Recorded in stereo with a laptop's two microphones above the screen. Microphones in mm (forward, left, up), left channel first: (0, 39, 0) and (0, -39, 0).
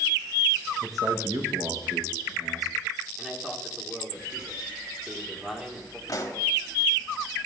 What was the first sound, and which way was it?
A man speaking, 45° right (ahead or behind).